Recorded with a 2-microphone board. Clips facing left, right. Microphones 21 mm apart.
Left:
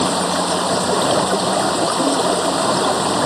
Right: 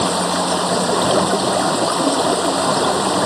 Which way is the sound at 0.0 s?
5° right (ahead or behind).